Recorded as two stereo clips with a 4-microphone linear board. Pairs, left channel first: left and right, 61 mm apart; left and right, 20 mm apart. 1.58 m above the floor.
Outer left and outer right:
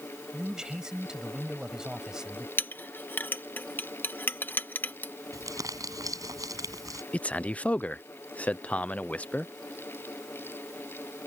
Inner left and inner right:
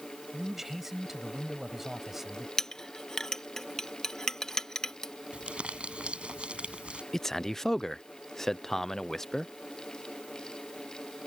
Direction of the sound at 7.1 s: 25° left (ahead or behind).